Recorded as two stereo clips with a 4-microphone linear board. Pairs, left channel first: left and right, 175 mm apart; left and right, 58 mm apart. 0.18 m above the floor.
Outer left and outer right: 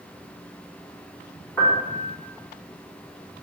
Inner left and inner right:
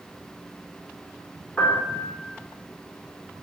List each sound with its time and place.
1.6 s a piano: 15° left (ahead or behind), 4.5 m